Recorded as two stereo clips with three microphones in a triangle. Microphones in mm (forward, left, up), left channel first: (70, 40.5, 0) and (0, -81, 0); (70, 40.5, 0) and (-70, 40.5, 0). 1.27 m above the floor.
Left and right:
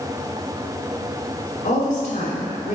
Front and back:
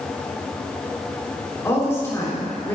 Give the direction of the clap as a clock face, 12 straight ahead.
No clap in this recording.